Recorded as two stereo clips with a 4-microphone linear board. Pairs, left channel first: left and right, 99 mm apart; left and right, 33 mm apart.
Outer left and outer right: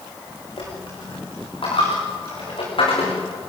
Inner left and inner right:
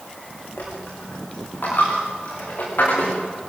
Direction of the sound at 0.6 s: 60° left (ahead or behind).